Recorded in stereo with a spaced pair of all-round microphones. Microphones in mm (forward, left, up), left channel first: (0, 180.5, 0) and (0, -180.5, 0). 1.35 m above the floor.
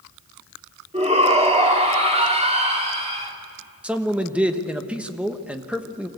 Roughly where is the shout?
Centre.